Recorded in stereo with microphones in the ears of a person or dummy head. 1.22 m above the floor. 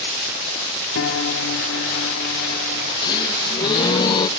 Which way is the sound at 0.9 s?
70° left (ahead or behind).